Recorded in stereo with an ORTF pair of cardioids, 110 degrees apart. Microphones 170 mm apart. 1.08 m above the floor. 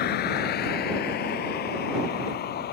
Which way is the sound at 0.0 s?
70° left.